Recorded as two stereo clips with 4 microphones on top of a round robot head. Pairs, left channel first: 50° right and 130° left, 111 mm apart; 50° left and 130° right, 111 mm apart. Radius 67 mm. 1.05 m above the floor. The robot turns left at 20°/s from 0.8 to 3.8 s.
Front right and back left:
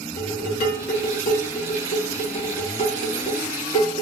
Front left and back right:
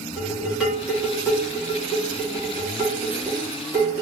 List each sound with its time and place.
0.2 s dishes clattering: 45° right, 1.1 m; by 4.0 s 105° right, 1.1 m